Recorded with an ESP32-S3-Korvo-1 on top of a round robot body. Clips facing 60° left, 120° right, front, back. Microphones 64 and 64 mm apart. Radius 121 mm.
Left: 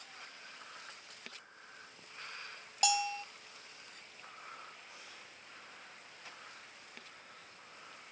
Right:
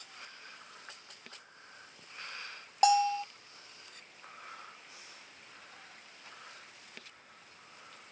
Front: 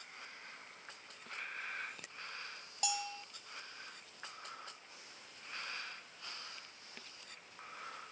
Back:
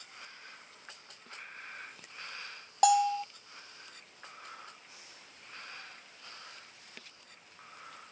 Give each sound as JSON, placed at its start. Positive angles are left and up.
{"t": 2.8, "sound": "a bell", "azimuth_deg": -170}